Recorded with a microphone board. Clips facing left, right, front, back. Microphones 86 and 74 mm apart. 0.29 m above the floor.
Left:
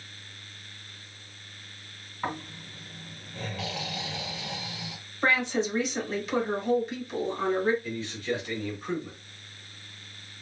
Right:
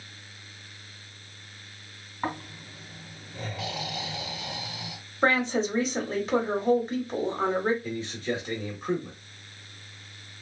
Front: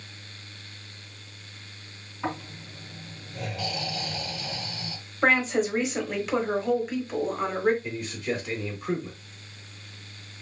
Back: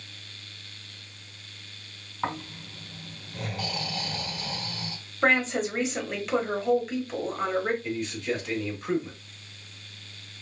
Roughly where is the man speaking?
Right.